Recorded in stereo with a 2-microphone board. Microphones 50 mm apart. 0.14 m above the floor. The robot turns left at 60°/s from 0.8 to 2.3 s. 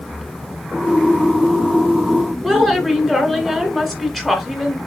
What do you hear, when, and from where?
2.4 s a woman speaking: 5° left (ahead or behind), 1.8 m